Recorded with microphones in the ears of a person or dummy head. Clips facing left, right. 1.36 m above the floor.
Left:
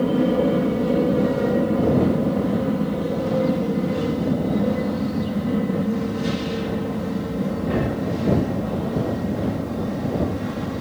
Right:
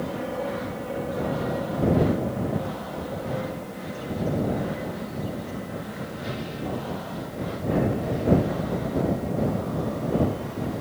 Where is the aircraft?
55° left (ahead or behind); by 10.8 s 65° left (ahead or behind).